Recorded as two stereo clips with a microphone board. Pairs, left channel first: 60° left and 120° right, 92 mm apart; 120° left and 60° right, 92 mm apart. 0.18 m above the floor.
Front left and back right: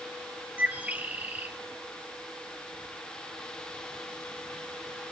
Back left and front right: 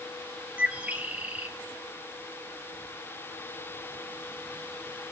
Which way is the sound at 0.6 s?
95° right.